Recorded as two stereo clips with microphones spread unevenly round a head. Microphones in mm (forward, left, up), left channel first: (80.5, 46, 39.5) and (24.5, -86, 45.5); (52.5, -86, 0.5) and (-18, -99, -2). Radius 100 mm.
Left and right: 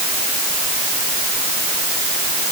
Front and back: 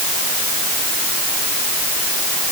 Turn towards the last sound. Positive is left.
No sound to turn to.